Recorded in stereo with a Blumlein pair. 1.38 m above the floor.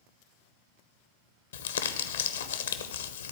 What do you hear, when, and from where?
1.5 s crumpling: 65° left, 0.8 m